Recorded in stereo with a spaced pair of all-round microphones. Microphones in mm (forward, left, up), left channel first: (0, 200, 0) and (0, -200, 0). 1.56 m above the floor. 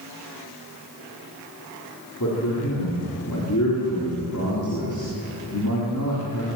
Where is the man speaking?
45° left (ahead or behind), 4.5 m.